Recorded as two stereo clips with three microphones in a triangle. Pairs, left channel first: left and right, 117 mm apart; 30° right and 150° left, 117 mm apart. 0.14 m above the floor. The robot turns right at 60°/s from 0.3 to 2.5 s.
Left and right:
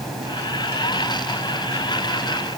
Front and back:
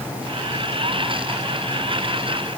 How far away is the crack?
I don't hear a crack.